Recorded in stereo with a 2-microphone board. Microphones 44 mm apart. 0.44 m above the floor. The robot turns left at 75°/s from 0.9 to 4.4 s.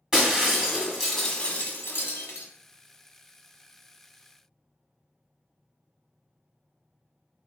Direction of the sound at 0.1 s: 170° right.